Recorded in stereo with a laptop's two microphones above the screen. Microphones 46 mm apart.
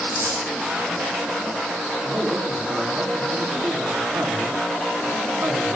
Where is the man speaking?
50° right (ahead or behind), 9 m.